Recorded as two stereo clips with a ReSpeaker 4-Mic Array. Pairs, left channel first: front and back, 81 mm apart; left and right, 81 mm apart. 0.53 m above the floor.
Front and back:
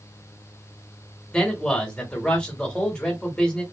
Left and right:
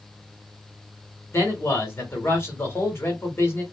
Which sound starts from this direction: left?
A man speaking, at 1.3 s.